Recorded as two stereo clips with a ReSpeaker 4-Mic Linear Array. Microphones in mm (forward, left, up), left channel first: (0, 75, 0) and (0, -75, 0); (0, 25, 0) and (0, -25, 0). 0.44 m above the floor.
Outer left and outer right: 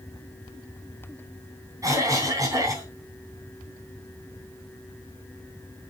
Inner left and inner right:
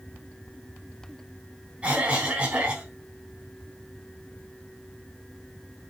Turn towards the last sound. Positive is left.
turn(degrees=-20)  # may be behind; listen again after turning